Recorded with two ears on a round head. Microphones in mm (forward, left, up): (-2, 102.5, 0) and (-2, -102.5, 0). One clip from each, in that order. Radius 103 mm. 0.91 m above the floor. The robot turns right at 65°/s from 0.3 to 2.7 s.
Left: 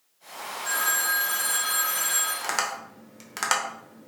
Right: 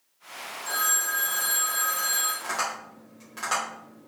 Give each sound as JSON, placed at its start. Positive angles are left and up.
{"t": 0.7, "sound": "a phone ringing", "azimuth_deg": 5, "distance_m": 1.9}
{"t": 2.4, "sound": "tapping", "side_deg": 55, "distance_m": 0.9}